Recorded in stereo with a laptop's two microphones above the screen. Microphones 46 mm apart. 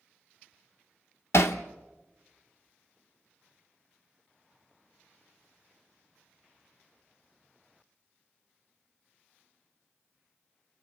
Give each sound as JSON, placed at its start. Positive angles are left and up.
{"t": 1.3, "sound": "hammering", "side_deg": 70, "distance_m": 1.0}